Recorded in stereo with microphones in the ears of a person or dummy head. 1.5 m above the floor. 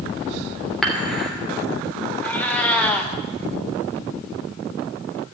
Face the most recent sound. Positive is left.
turn(degrees=10)  # may be behind; listen again after turning